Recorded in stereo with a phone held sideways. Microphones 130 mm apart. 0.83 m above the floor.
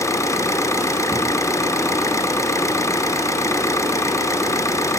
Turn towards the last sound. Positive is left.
turn(degrees=20)  # may be behind; listen again after turning